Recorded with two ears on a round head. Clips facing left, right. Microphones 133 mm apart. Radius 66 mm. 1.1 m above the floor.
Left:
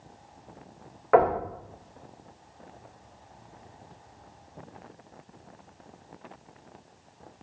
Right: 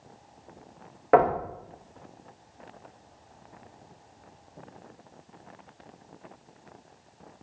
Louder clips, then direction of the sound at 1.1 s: Even; 35° right (ahead or behind).